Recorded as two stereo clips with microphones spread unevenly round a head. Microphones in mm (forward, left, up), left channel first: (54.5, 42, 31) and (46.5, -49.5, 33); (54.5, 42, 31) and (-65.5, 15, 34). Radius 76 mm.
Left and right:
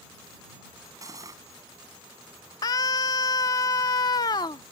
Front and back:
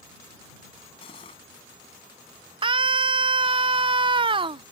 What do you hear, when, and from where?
1.0 s cutlery clinking: 45° right
2.6 s a scream: 145° left